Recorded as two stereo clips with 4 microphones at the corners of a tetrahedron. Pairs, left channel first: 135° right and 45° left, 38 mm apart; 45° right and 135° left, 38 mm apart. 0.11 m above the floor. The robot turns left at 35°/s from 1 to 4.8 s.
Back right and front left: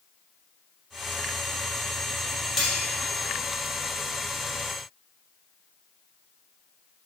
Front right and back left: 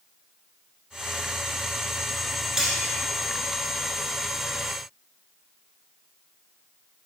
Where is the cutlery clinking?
95° left, 0.9 m; by 2.8 s 90° left, 0.9 m.